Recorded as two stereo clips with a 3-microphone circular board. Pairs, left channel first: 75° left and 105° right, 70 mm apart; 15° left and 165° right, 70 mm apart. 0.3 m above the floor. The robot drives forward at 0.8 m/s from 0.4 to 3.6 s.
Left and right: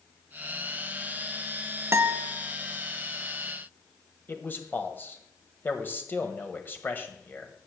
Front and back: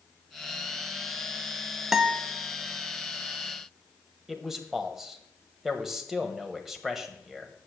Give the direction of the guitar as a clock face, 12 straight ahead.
3 o'clock.